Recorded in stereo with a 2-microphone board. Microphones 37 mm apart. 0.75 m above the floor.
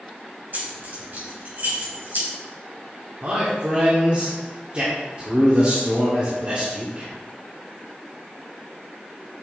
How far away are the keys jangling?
About 3.5 m.